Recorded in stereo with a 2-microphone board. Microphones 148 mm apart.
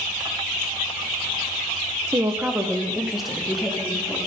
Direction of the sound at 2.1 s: 25° right (ahead or behind).